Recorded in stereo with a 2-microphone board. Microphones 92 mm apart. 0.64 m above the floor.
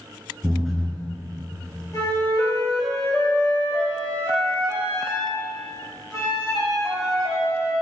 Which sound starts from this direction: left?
A flute, at 1.9 s.